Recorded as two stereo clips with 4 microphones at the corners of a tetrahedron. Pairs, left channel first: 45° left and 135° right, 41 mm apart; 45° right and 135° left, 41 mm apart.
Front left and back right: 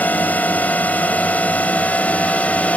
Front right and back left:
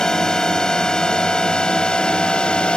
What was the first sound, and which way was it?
A drone, 25° left.